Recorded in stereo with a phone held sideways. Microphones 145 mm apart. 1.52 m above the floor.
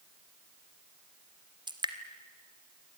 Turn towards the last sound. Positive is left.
turn(degrees=-30)  # may be behind; listen again after turning